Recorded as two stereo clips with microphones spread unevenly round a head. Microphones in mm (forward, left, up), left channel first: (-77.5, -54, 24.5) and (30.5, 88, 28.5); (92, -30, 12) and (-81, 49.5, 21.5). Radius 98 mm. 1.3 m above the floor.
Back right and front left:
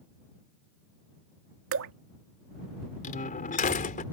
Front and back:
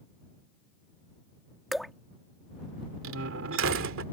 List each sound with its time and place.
1.7 s dripping: 65° left
3.0 s a door slam: 175° right